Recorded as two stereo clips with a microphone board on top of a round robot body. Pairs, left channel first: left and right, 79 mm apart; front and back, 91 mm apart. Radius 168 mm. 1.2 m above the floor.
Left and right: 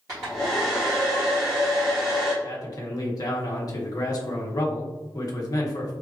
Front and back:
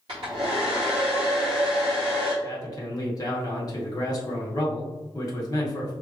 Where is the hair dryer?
145° right, 0.7 m.